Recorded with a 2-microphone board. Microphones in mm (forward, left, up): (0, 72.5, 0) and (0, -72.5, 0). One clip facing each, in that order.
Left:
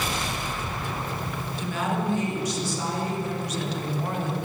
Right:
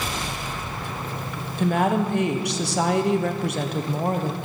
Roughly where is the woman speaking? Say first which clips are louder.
Right 8 dB; right.